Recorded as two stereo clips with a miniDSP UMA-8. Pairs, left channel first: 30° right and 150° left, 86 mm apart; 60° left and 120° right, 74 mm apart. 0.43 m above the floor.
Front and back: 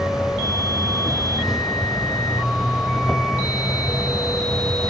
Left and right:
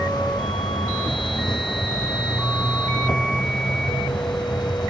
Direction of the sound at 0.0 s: 65° left.